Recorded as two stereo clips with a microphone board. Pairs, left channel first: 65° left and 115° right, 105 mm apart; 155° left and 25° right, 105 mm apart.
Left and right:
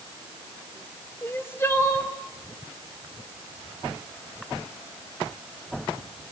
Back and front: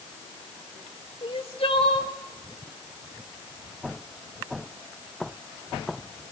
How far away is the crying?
About 3 m.